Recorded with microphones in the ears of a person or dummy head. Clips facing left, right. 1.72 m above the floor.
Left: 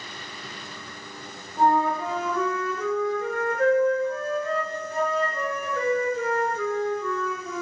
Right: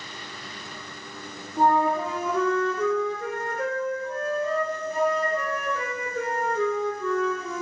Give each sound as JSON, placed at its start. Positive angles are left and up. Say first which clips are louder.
{"t": 1.6, "sound": "a flute", "louder": "even", "side_deg": -55, "distance_m": 1.5}